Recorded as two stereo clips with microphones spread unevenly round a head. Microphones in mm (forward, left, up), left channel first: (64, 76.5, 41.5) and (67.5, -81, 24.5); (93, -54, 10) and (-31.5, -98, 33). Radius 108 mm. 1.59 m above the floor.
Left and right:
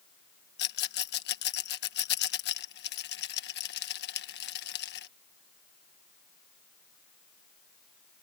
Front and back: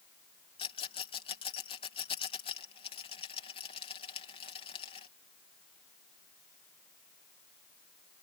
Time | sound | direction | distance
0.6 | a rattle | 85° left | ?